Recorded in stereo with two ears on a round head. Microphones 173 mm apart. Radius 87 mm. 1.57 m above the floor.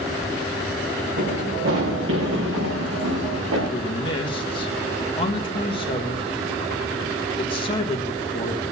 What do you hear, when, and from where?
1.2 s running footsteps: 65° right (ahead or behind), 5.5 m; by 3.6 s 75° right (ahead or behind), 6 m
3.7 s a man speaking: 25° left (ahead or behind), 1.6 m